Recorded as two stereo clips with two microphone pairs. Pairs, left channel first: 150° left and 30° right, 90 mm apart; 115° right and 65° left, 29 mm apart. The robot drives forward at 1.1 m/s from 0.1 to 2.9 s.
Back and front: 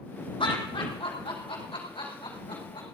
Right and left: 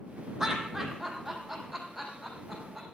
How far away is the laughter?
About 4 m.